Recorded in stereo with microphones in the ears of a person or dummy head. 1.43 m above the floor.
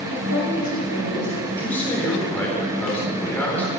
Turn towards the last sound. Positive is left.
turn(degrees=10)  # may be behind; listen again after turning